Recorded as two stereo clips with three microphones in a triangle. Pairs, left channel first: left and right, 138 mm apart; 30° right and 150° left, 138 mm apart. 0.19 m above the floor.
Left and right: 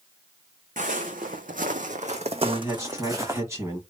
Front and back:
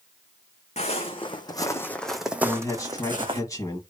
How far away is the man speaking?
About 1.3 m.